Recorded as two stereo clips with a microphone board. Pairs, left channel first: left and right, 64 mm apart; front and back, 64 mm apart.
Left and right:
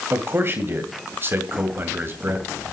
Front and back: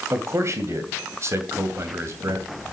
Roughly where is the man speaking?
Behind right.